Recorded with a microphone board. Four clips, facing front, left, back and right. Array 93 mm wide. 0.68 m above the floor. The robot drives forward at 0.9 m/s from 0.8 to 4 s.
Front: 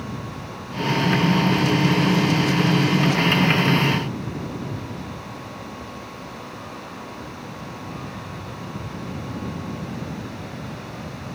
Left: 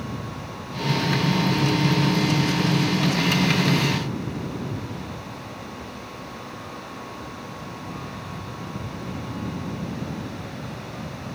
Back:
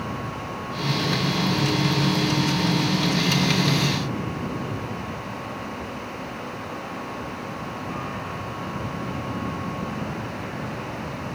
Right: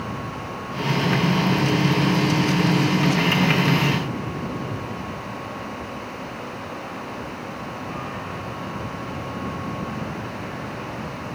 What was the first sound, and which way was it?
Only background noise.